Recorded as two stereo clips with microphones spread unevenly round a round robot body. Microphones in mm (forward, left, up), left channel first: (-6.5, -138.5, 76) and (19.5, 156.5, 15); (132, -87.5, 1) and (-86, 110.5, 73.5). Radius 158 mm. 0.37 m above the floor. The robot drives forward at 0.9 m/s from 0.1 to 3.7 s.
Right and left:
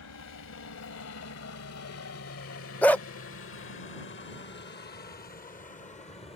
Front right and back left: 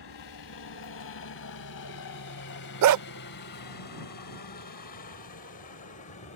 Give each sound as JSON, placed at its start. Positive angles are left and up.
{"t": 0.0, "sound": "a helicopter", "azimuth_deg": -60}
{"t": 2.8, "sound": "a dog barking", "azimuth_deg": 170}